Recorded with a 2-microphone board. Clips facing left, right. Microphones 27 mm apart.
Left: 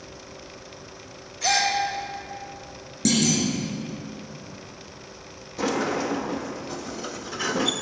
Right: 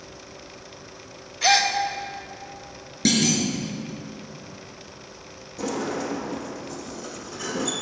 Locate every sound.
1.4 s a gasp: 35° right (ahead or behind), 1.4 m
3.0 s a clunk: 40° right (ahead or behind), 3 m
5.6 s a sliding door: 45° left (ahead or behind), 1.0 m